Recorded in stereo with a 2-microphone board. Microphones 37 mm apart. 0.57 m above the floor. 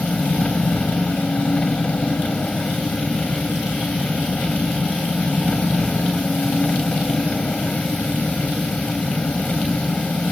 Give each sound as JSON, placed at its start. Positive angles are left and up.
{"t": 0.0, "sound": "an engine running", "side_deg": 35}